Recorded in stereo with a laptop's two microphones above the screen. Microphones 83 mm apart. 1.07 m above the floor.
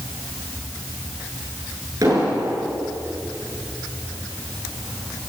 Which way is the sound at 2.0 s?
45° right (ahead or behind).